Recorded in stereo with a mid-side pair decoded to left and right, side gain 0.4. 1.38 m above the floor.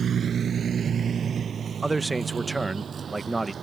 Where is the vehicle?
55° right; by 3.6 s 50° right.